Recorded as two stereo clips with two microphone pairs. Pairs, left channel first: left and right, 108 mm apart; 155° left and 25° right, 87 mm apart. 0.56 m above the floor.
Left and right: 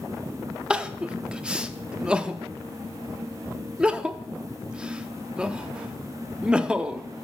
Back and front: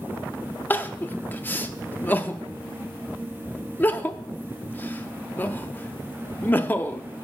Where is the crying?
155° right, 0.5 m.